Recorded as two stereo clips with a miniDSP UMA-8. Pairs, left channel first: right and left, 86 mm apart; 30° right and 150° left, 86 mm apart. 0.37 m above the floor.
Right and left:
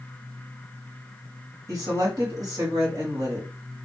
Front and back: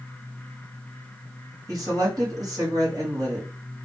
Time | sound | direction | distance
1.7 | a woman speaking | 120° left | 1.7 m